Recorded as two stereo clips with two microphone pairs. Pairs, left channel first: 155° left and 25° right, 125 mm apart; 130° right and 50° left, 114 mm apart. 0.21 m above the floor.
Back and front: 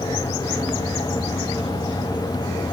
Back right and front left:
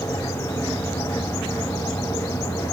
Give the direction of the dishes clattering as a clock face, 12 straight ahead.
I don't hear dishes clattering.